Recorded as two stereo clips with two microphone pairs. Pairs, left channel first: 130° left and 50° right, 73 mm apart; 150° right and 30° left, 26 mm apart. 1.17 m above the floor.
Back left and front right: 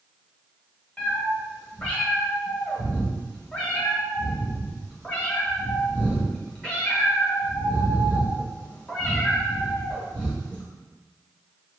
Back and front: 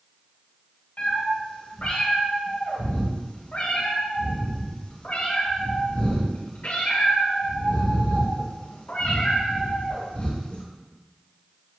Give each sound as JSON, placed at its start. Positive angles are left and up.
{"t": 1.0, "sound": "a cat meowing", "azimuth_deg": -160, "distance_m": 1.5}